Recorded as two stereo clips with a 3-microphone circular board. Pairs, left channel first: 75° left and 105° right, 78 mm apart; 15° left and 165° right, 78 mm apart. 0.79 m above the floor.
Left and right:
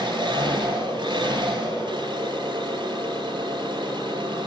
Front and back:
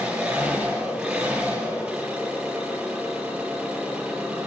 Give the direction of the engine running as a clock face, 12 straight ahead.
3 o'clock.